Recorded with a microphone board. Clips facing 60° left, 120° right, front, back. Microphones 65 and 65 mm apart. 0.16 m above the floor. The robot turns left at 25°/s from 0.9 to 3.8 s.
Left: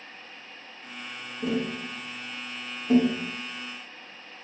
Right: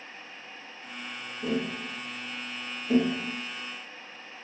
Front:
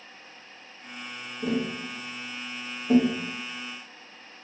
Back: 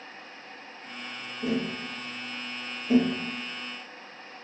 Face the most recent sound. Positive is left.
turn(degrees=-5)